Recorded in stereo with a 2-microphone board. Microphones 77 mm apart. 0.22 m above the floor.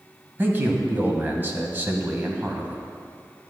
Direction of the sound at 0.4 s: 25° right (ahead or behind).